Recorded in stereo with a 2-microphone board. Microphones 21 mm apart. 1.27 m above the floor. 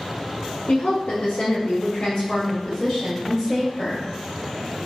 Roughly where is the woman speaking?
Left.